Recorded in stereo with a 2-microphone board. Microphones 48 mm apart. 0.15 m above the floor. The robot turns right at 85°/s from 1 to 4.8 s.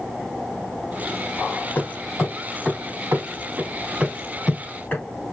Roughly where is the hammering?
Left.